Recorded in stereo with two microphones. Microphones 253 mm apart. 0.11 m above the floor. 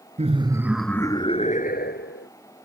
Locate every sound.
0.2 s laughter: 30° right (ahead or behind); by 2.3 s 50° left (ahead or behind)